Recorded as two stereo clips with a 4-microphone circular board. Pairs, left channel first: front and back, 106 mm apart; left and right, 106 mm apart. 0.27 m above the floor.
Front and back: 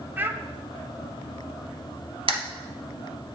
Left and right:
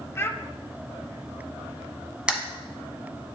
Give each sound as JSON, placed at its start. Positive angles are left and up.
{"t": 0.2, "sound": "a child speaking", "azimuth_deg": 130, "distance_m": 0.6}
{"t": 2.3, "sound": "a camera shutter", "azimuth_deg": -170, "distance_m": 1.1}